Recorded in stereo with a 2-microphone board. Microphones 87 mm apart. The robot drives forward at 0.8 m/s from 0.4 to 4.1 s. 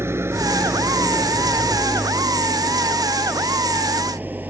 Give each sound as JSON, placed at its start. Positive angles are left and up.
{"t": 0.0, "sound": "an engine running", "side_deg": -30}